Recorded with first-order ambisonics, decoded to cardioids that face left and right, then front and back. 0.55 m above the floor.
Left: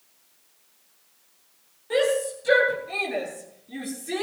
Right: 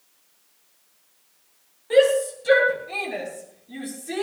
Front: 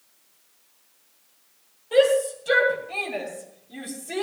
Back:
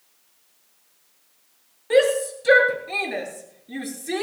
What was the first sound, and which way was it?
A shout, 170° right.